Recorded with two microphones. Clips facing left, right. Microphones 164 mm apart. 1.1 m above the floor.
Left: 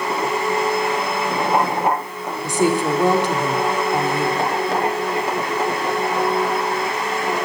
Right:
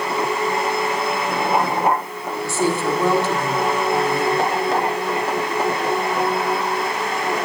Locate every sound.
2.4 s a woman speaking: 15° left (ahead or behind), 3.5 m